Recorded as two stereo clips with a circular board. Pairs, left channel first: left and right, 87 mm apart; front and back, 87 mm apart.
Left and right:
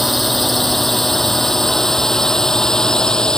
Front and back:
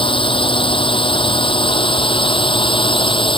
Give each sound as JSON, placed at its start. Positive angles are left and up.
{"t": 0.0, "sound": "a drone", "azimuth_deg": 0}